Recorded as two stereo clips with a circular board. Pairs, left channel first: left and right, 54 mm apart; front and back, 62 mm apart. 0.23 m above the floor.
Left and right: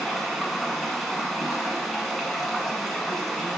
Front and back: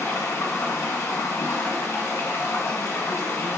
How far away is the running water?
About 2 m.